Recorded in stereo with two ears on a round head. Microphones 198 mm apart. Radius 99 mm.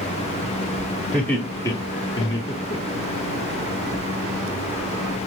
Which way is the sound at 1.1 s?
5° left (ahead or behind).